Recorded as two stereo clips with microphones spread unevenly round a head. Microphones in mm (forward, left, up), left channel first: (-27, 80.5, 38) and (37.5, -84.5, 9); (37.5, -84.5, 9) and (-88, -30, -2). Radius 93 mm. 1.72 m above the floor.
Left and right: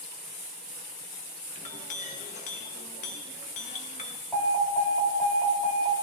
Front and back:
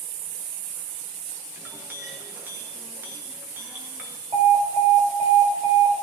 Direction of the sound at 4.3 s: 165° right.